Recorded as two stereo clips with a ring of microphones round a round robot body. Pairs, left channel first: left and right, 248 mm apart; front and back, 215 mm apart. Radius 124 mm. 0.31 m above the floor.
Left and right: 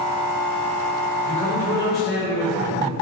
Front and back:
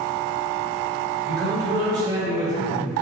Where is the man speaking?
140° left, 1.6 m.